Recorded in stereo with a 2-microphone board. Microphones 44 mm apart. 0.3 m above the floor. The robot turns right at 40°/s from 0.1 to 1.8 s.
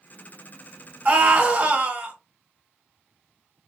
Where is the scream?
40° right (ahead or behind), 1.3 m.